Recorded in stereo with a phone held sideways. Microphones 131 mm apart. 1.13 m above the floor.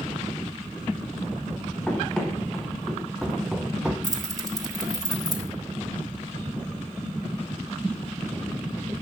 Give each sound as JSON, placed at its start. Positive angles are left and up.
{"t": 1.9, "sound": "running footsteps", "side_deg": 5, "distance_m": 4.0}
{"t": 4.0, "sound": "keys jangling", "side_deg": -30, "distance_m": 3.0}